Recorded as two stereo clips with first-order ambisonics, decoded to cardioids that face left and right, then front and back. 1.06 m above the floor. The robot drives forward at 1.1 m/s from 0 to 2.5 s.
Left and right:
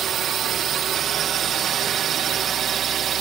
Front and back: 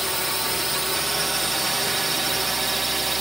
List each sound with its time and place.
0.0 s a drone: 95° right; by 3.2 s 110° right